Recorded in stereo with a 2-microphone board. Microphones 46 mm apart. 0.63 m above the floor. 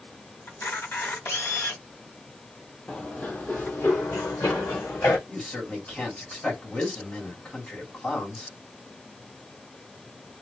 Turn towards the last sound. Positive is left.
turn(degrees=30)  # may be behind; listen again after turning